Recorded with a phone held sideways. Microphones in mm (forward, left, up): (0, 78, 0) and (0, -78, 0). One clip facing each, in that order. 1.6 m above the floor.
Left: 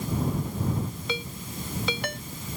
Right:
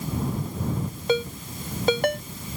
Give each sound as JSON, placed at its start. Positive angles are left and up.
{"t": 1.1, "sound": "a ringtone", "side_deg": -50}